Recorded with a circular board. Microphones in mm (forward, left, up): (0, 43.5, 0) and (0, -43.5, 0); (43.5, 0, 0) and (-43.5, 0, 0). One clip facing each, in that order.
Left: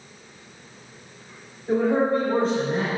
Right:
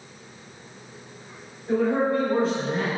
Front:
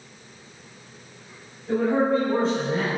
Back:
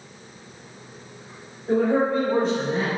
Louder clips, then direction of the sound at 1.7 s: Left 1 dB, back 1 dB; 145° left.